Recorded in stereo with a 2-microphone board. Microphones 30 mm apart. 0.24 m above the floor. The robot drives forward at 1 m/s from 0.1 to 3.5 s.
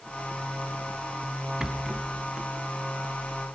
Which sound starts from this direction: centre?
A rattle, at 1.6 s.